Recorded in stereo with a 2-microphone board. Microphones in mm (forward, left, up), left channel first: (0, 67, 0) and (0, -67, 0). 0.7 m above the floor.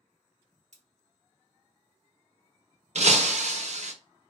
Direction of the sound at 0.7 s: 60° right (ahead or behind).